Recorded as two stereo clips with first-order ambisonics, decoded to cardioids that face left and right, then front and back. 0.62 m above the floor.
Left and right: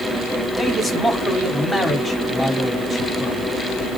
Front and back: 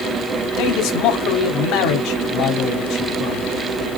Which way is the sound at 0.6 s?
5° left.